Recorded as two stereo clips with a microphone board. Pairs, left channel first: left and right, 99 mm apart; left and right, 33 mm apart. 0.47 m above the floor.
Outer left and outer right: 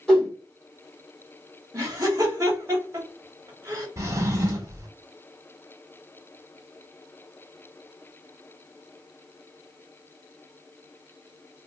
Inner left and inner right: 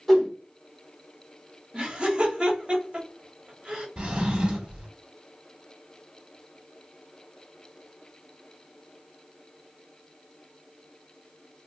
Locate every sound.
0.1 s a whoosh: 5° left (ahead or behind), 1.5 m
1.7 s laughter: 35° right (ahead or behind), 1.2 m
4.0 s a drawer: 35° right (ahead or behind), 0.8 m